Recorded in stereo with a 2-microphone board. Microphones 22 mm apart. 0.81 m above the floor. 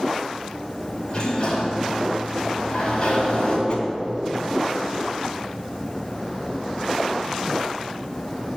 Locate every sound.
1.1 s a sliding door: 40° left (ahead or behind), 3.5 m
3.7 s a whoosh: 45° left (ahead or behind), 2 m